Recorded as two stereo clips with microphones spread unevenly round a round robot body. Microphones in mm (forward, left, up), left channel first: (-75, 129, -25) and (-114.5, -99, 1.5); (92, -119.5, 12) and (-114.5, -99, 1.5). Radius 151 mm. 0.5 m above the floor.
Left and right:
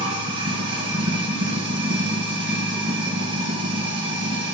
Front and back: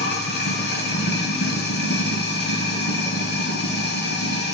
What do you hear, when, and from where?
0.0 s running water: 40° right, 2.5 m